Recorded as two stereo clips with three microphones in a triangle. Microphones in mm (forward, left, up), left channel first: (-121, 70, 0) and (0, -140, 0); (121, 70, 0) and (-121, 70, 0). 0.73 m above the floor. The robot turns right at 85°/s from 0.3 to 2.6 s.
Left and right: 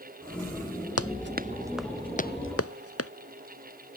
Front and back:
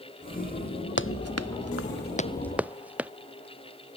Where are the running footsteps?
40° right; by 3.1 s 95° left.